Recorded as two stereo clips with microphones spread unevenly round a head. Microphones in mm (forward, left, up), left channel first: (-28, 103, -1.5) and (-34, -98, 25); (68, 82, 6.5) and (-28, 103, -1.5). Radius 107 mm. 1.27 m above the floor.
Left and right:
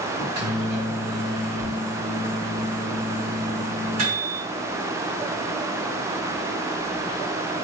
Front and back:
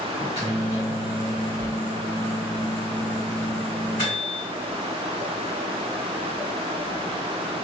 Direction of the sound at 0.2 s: 75° right.